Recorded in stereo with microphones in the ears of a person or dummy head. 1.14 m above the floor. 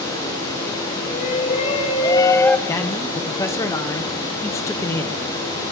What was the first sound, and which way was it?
A shout, 45° left (ahead or behind).